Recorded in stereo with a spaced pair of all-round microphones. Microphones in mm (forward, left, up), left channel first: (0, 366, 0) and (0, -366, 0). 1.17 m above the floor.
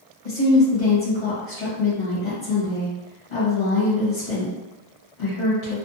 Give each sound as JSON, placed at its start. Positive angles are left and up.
{"t": 0.2, "sound": "a woman speaking", "side_deg": 70, "distance_m": 1.1}